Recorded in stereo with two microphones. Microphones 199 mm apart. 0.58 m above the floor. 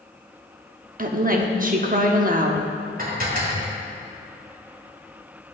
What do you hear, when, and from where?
1.0 s a woman speaking: 45° right (ahead or behind), 1.0 m
3.0 s dishes clattering: 45° right (ahead or behind), 1.7 m